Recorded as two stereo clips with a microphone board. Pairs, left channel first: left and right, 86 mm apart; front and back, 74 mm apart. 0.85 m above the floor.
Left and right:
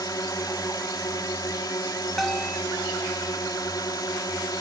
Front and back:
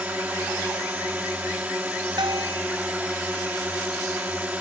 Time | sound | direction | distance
0.0 | a drone | 115° left | ?
2.2 | a bell | 175° left | ?